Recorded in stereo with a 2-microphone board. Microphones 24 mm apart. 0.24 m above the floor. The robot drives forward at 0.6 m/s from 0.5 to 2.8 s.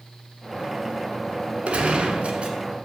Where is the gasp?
No gasp in this recording.